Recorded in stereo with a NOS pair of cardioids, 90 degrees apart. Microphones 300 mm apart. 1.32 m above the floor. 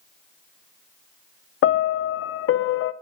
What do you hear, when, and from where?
1.6 s a piano: 45° left, 0.6 m